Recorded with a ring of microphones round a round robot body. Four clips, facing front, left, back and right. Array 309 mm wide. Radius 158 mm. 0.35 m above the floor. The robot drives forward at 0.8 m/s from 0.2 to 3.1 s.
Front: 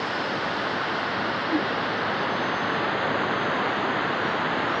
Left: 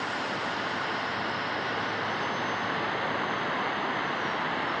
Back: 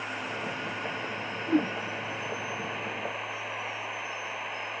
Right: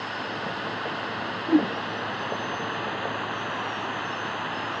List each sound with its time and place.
0.0 s running water: 5° left
1.5 s a whoosh: 95° right; by 1.7 s 100° right